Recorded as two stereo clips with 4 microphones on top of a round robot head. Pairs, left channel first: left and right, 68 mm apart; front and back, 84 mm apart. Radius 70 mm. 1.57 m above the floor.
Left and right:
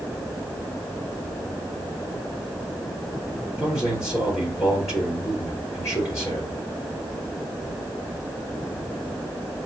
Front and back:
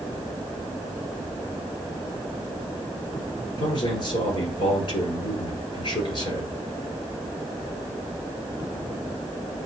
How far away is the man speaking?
About 5 m.